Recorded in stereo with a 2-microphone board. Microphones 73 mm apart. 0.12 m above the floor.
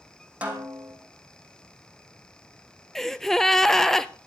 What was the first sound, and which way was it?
A snare drum, 15° right (ahead or behind).